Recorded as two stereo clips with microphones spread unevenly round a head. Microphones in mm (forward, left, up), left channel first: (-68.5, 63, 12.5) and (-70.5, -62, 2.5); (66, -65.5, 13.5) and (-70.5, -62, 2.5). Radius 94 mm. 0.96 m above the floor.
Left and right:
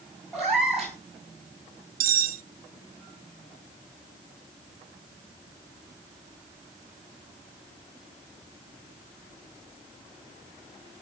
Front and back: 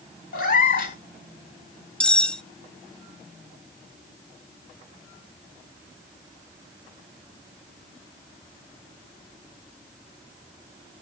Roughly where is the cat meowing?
Ahead.